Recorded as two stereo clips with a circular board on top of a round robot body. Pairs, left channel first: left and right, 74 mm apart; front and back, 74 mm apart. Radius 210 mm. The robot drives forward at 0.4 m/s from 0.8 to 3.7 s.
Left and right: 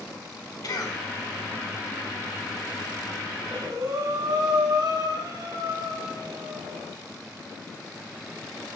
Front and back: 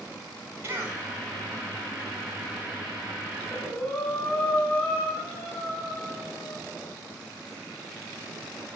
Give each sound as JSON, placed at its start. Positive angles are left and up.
{"t": 0.6, "sound": "a cough", "azimuth_deg": 125, "distance_m": 5.0}
{"t": 3.4, "sound": "breathing", "azimuth_deg": -70, "distance_m": 7.5}